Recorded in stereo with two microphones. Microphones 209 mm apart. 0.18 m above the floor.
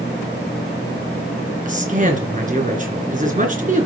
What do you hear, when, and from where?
1.6 s a man speaking: 40° right (ahead or behind), 3 m